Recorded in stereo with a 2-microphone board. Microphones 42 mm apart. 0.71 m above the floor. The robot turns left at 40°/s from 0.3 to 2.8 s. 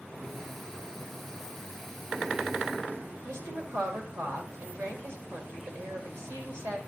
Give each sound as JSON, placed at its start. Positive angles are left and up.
{"t": 3.2, "sound": "a woman speaking", "side_deg": -80, "distance_m": 2.5}